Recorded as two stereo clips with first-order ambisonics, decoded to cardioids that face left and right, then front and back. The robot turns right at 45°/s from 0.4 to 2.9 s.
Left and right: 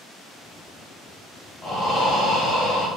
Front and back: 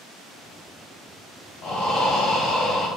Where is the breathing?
Straight ahead, 1.6 m; by 2.9 s 55° left, 1.6 m.